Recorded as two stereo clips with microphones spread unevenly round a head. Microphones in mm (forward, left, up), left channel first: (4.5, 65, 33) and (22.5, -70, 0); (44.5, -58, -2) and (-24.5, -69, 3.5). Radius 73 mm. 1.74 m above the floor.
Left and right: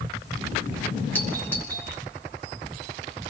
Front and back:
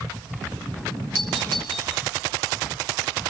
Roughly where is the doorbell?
Behind.